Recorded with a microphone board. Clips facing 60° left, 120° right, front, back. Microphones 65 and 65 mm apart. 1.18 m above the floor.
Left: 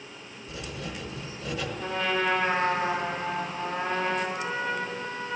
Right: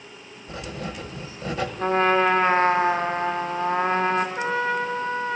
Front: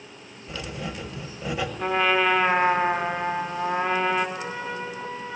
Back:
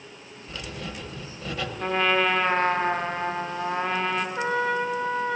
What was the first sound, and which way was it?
Writing, 75° right.